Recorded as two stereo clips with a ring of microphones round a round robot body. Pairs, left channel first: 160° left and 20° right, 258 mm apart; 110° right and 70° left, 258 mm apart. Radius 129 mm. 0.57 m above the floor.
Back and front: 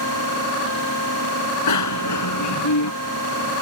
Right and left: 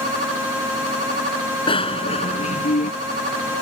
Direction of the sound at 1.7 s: 175° left.